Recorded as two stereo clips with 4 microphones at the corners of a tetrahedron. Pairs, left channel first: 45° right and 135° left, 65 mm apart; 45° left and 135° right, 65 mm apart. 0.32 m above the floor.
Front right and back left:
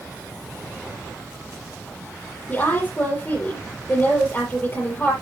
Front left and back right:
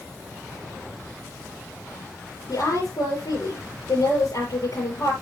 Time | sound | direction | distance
2.5 | a woman speaking | 25° left | 6.5 m